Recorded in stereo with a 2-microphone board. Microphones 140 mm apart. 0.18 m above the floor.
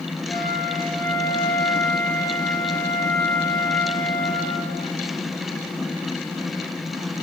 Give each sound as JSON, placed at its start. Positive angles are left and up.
{"t": 0.3, "sound": "a flute", "side_deg": 20, "distance_m": 2.5}